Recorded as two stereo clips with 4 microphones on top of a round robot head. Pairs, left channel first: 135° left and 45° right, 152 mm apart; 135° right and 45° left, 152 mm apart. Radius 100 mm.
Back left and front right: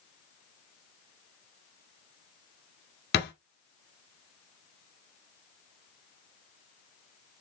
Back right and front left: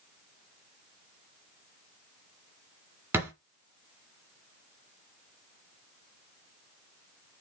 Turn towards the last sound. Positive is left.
turn(degrees=120)